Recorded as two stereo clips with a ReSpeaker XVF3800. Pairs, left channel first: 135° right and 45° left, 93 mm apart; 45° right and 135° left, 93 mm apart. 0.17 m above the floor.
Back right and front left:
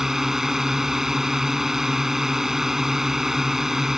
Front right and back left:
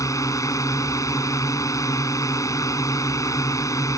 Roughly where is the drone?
Ahead right.